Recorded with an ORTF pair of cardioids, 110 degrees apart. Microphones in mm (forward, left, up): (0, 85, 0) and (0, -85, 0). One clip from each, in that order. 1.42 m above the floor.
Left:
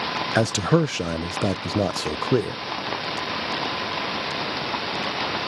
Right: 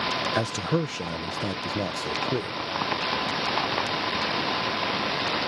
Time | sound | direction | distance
0.3 | a man speaking | 35° left | ?